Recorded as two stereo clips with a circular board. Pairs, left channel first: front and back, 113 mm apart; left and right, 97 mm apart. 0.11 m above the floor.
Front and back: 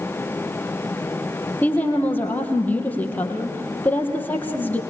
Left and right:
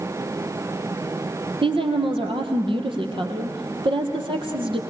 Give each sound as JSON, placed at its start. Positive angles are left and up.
{"t": 1.6, "sound": "a woman speaking", "azimuth_deg": -75, "distance_m": 3.0}